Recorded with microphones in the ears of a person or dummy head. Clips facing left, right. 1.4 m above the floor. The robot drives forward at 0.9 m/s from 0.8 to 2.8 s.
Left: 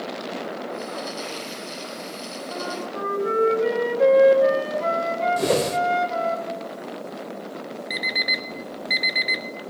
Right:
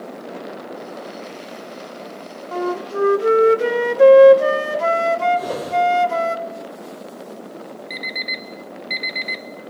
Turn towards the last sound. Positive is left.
turn(degrees=10)  # may be behind; listen again after turning